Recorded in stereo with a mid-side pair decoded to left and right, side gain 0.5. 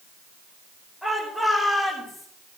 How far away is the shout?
About 5.5 m.